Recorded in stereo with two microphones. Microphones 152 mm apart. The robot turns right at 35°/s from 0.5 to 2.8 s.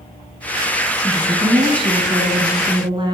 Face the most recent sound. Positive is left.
turn(degrees=-70)